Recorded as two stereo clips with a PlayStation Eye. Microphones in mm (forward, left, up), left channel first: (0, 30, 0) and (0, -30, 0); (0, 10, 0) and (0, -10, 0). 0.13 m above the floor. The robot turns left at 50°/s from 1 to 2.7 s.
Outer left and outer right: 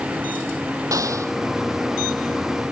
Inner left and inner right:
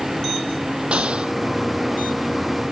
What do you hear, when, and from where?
0.9 s an explosion: 70° right (ahead or behind); by 1.3 s 55° right (ahead or behind)